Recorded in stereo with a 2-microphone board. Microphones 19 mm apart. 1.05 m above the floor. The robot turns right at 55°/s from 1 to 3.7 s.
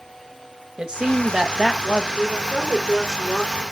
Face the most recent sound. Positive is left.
turn(degrees=30)